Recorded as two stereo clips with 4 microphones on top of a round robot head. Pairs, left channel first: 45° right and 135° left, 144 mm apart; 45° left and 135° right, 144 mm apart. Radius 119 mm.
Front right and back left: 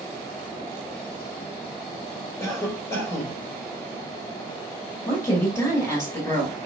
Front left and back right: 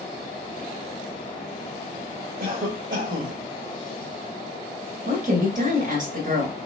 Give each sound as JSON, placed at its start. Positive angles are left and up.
{"t": 2.4, "sound": "a cough", "azimuth_deg": -115, "distance_m": 2.0}
{"t": 5.0, "sound": "a woman speaking", "azimuth_deg": -115, "distance_m": 2.5}